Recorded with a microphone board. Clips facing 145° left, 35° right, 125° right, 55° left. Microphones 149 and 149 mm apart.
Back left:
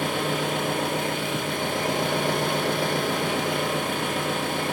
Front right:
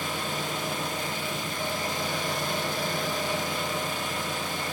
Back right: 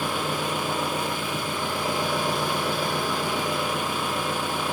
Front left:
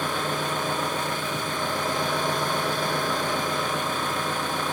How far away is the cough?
No cough in this recording.